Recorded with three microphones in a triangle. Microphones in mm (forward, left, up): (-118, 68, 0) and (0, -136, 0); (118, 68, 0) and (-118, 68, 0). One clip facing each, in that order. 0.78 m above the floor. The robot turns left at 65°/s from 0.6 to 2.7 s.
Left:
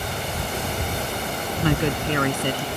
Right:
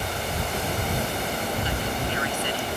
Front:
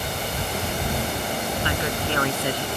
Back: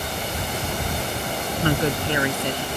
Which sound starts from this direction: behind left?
A woman speaking, at 1.6 s.